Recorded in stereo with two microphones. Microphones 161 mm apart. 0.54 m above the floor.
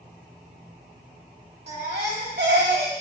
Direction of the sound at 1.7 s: 75° right (ahead or behind).